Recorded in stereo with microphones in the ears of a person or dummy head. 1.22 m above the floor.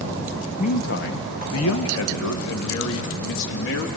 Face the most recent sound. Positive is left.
turn(degrees=65)  # may be behind; listen again after turning